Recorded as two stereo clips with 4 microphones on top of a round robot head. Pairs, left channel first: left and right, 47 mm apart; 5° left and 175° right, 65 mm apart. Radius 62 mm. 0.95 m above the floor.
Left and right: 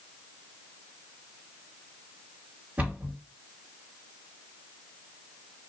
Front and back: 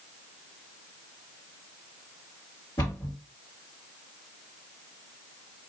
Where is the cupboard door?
35° right, 1.8 m.